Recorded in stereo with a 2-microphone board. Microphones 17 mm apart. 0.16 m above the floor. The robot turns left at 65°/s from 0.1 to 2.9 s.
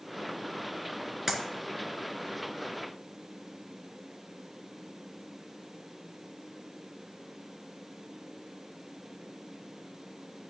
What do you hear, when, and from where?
1.3 s a clap: 25° right (ahead or behind), 1.8 m; by 1.4 s 35° right (ahead or behind), 1.8 m